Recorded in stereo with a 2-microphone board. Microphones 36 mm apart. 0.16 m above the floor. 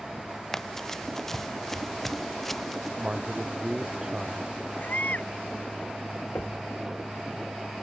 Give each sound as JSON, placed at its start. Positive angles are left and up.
{"t": 0.5, "sound": "running footsteps", "side_deg": 15}
{"t": 3.0, "sound": "a man speaking", "side_deg": -20}
{"t": 4.8, "sound": "a baby crying", "side_deg": 50}
{"t": 6.3, "sound": "knocking", "side_deg": 65}